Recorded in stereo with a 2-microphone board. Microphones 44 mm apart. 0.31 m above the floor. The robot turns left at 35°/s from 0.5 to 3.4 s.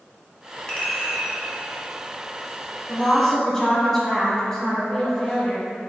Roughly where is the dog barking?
No dog barking in this recording.